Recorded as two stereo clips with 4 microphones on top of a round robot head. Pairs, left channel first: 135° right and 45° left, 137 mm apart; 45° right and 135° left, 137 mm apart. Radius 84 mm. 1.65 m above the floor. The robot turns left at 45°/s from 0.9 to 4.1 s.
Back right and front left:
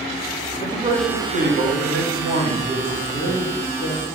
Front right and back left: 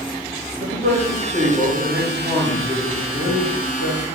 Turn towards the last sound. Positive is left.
turn(degrees=-40)